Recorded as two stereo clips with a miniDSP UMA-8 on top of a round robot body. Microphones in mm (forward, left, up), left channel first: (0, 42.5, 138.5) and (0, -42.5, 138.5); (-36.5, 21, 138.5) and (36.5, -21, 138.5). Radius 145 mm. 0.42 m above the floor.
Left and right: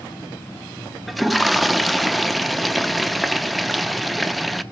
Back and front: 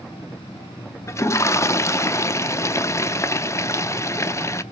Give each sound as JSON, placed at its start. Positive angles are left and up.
{"t": 1.1, "sound": "a toilet flushing", "azimuth_deg": 180, "distance_m": 0.8}